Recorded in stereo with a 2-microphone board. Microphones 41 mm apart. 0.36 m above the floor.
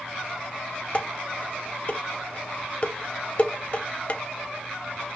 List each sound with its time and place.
0.9 s dishes clattering: 35° left (ahead or behind), 1.1 m